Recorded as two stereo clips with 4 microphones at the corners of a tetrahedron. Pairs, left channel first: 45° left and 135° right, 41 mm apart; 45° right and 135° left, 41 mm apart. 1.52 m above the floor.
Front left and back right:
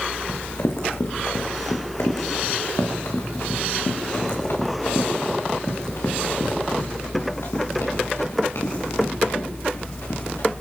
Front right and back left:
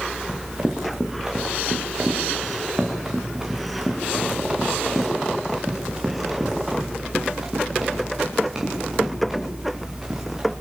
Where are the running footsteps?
60° left, 5.5 m; by 10.5 s 55° left, 10.5 m.